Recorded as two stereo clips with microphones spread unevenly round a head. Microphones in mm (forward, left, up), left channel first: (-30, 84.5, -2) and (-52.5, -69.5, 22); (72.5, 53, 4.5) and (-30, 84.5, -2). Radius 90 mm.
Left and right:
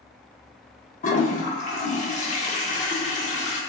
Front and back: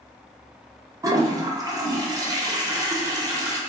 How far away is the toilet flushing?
About 0.6 m.